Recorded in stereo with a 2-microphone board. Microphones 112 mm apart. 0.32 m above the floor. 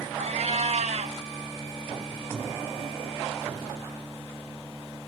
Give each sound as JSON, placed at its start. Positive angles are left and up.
{"t": 0.2, "sound": "a cat meowing", "side_deg": -80, "distance_m": 0.8}